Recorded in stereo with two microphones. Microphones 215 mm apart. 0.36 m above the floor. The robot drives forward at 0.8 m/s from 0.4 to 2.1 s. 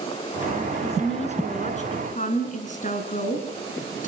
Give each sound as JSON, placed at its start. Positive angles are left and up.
{"t": 0.8, "sound": "a woman speaking", "side_deg": 30, "distance_m": 5.0}